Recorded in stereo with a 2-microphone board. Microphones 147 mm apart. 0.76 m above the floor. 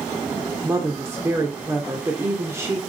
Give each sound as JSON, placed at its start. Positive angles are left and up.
{"t": 0.6, "sound": "a woman speaking", "side_deg": -20, "distance_m": 1.7}